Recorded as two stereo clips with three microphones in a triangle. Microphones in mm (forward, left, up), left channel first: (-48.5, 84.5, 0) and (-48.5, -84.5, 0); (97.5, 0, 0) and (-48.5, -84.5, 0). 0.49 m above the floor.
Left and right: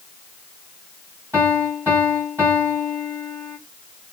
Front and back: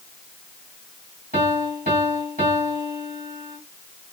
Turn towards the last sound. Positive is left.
turn(degrees=-165)